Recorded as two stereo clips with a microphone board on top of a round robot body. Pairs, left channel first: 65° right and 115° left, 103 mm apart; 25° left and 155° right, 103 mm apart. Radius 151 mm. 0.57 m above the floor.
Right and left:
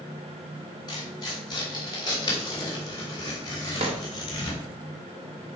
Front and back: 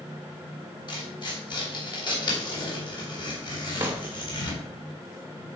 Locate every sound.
0.9 s tearing paper: 20° right, 3 m
3.8 s a drawer: 135° left, 1.3 m